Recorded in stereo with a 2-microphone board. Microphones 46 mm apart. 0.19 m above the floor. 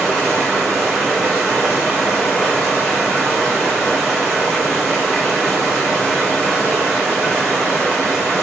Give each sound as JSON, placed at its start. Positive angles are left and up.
{"t": 0.0, "sound": "running water", "side_deg": 15, "distance_m": 8.0}